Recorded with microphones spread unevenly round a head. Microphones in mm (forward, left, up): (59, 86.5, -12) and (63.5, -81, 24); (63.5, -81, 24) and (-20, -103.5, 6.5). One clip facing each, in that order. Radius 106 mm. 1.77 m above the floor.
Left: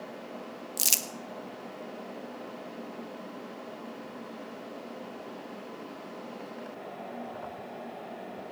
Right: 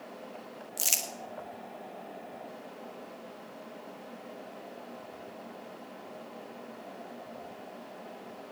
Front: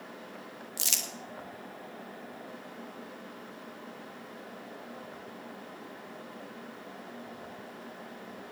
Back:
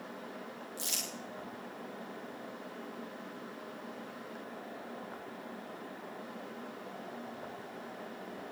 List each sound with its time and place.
0.8 s crumpling: 45° left, 1.6 m